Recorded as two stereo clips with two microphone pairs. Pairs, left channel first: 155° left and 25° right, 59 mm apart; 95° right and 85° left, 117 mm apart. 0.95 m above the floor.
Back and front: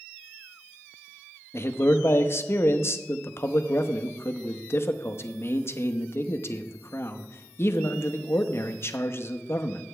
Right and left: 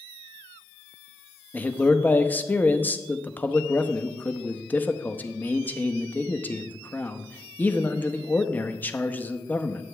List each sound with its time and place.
1.5 s a man speaking: 170° right, 0.8 m